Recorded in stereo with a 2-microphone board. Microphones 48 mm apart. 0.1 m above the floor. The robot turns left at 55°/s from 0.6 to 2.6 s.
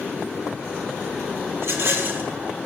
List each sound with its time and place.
1.6 s a rattle: 90° right, 2.5 m; by 2.3 s 125° right, 2.5 m